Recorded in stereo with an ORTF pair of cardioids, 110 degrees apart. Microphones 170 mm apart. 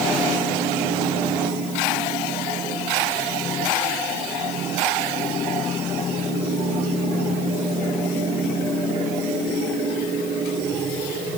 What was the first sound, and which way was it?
Only background noise.